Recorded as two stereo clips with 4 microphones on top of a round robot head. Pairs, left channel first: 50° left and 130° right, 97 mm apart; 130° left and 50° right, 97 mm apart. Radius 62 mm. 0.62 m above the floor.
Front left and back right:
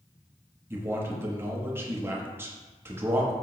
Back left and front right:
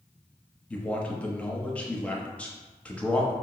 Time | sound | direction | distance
0.7 | a man speaking | 165° right | 0.8 m